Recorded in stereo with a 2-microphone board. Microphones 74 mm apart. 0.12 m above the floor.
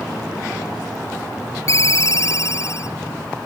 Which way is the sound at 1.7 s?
45° left (ahead or behind).